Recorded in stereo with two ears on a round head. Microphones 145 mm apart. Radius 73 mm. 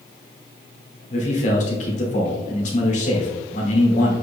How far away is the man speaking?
About 2.5 m.